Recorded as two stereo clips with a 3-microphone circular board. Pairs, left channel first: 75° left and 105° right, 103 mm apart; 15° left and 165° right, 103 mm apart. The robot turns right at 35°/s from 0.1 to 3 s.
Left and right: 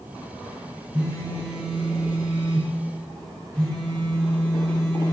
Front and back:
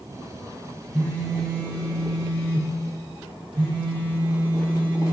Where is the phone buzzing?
45° right, 1.2 m; by 5.1 s 30° left, 1.2 m.